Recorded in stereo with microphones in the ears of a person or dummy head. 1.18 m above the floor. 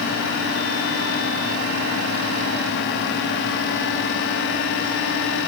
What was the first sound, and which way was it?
Only background noise.